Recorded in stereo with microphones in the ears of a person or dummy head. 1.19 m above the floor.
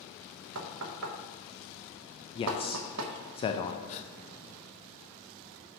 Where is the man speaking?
20° left (ahead or behind), 0.5 m.